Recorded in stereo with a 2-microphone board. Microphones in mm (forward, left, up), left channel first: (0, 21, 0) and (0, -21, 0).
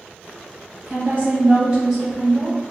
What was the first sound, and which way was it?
A woman speaking, 35° right (ahead or behind).